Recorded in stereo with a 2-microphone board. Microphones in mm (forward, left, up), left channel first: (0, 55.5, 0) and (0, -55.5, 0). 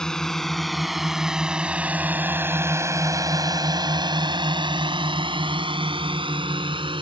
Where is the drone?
5° left (ahead or behind); by 7.0 s 50° right (ahead or behind).